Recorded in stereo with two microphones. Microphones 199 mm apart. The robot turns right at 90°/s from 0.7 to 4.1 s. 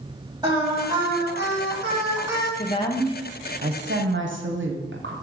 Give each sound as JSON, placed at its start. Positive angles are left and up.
{"t": 0.4, "sound": "singing", "azimuth_deg": -155, "distance_m": 1.9}
{"t": 2.6, "sound": "a woman speaking", "azimuth_deg": 135, "distance_m": 1.0}